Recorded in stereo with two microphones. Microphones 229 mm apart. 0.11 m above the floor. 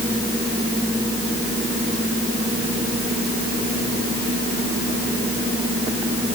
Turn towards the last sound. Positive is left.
No sound to turn to.